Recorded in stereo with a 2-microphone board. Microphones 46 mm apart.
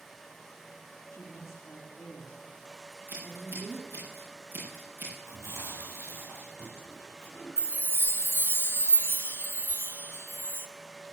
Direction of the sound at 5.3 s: 80° right.